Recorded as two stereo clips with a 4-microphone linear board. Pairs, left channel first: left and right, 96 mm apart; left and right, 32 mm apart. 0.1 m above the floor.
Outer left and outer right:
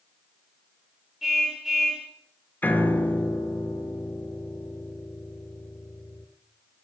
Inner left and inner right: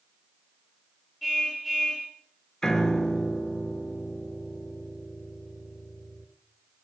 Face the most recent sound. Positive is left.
turn(degrees=20)  # may be behind; listen again after turning